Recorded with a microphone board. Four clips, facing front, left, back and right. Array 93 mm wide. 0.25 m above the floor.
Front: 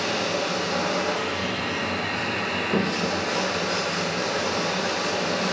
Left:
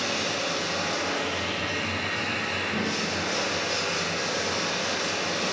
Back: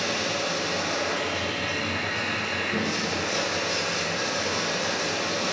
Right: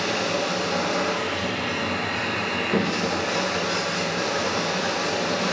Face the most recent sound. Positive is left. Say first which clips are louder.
# right 4 dB, front 2 dB
turn(degrees=-50)